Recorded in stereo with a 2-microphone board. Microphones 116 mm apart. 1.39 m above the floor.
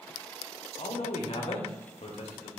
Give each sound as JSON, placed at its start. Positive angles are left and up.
{"t": 0.8, "sound": "a man speaking", "side_deg": 60, "distance_m": 0.6}